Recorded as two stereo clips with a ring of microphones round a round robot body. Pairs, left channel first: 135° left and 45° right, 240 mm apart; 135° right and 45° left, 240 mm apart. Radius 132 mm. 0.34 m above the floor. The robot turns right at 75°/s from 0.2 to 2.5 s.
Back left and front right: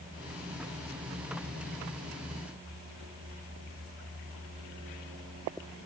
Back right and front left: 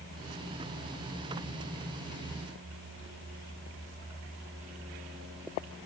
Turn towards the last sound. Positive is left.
No sound to turn to.